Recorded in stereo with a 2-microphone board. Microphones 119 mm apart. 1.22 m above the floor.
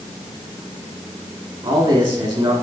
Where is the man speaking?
45° right (ahead or behind), 2.5 m.